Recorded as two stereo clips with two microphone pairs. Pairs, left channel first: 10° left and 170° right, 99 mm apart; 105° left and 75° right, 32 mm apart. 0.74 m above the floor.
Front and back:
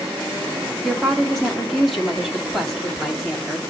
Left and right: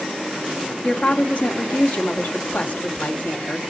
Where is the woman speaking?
95° left, 1.9 m.